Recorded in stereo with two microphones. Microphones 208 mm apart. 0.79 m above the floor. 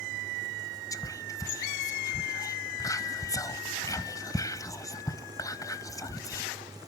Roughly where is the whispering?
Centre.